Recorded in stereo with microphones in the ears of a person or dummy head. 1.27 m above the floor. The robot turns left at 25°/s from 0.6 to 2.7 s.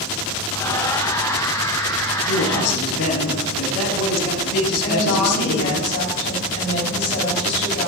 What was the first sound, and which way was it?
A man speaking, 65° left (ahead or behind).